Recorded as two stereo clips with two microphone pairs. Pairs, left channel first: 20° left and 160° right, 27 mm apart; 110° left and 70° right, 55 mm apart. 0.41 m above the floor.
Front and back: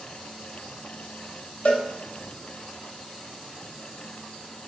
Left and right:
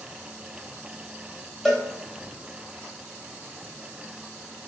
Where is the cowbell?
30° left, 0.8 m.